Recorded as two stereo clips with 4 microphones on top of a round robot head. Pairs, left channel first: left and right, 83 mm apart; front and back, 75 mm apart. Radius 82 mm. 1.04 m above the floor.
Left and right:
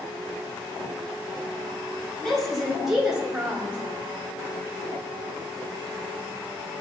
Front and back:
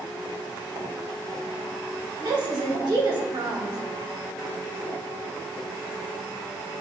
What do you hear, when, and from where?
2.2 s a woman speaking: 175° left, 2.5 m; by 3.8 s 160° right, 2.5 m